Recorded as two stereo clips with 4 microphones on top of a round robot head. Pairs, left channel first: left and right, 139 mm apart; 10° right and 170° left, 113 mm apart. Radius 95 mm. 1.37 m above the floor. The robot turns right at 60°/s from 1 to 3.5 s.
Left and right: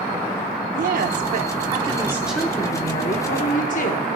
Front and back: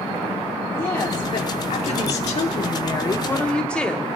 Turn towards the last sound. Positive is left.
turn(degrees=70)